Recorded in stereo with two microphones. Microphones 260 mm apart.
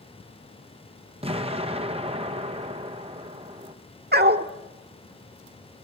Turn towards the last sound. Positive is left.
turn(degrees=-40)  # may be behind; listen again after turning